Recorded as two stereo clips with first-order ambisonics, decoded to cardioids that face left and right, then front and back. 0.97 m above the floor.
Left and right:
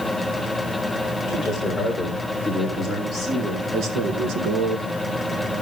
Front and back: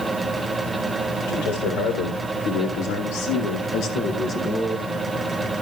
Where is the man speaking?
5° left, 4 m; by 4.9 s 85° right, 1.7 m.